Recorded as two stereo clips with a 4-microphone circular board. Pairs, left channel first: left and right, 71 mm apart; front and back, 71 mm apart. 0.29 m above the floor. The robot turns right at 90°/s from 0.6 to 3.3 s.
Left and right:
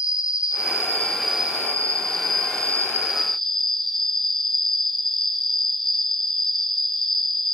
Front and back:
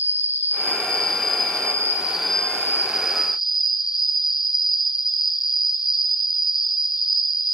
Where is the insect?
120° left, 1.5 m; by 7.5 s 5° left, 1.5 m.